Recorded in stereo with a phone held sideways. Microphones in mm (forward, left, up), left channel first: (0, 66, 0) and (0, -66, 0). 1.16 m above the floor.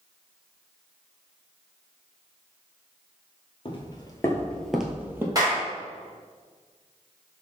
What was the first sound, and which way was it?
Footsteps, 40° left (ahead or behind).